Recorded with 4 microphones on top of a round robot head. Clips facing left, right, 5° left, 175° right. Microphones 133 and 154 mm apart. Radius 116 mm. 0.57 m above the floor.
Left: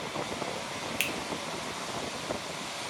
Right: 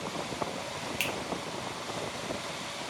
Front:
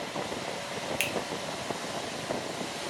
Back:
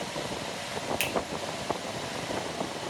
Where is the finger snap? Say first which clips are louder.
Right 1 dB, back 1 dB; 65° left, 0.6 m.